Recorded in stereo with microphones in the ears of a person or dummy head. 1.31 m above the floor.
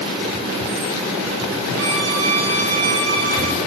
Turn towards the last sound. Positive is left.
turn(degrees=-75)  # may be behind; listen again after turning